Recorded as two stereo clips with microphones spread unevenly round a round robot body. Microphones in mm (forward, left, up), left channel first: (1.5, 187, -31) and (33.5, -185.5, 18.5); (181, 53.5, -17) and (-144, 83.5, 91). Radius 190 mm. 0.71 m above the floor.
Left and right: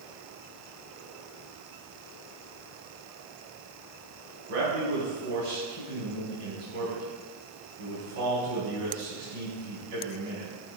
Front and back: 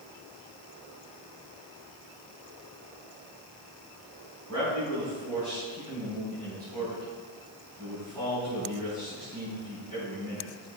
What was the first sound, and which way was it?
A man speaking, 90° right.